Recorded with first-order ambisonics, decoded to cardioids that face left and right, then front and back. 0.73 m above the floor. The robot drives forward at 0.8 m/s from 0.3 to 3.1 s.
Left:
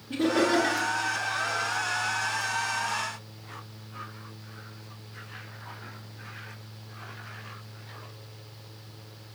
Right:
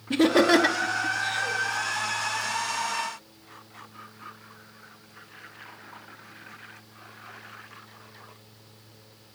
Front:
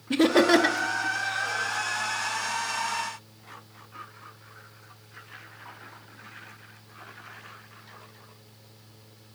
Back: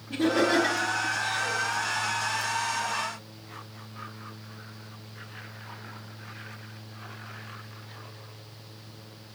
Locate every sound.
0.1 s laughter: 40° right, 0.9 m; by 1.6 s 130° right, 0.8 m